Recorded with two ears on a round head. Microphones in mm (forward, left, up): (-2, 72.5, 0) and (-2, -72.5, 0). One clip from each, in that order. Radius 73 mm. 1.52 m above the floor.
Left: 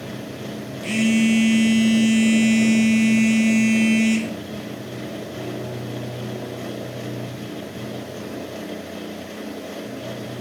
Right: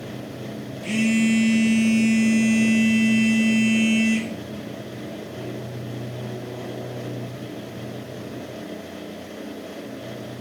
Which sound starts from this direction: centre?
A phone buzzing, at 0.8 s.